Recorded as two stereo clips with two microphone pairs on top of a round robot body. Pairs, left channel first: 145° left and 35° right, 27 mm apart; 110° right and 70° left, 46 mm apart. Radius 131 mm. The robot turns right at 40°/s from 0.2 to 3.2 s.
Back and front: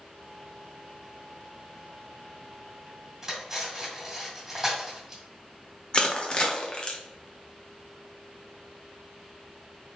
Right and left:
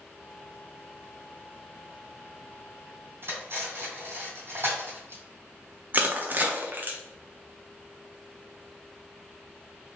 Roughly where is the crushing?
Left.